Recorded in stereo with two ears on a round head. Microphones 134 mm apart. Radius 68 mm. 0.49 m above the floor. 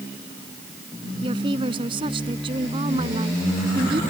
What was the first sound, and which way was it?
A woman speaking, 35° right (ahead or behind).